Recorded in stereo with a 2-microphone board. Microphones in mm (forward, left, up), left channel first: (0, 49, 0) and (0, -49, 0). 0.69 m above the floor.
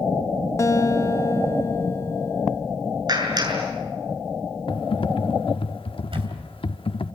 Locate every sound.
0.6 s a guitar: 30° left (ahead or behind), 1.8 m
3.1 s a clap: 45° right (ahead or behind), 7 m
4.7 s typing on a keyboard: 65° left (ahead or behind), 0.8 m
6.1 s a camera shutter: 65° right (ahead or behind), 3 m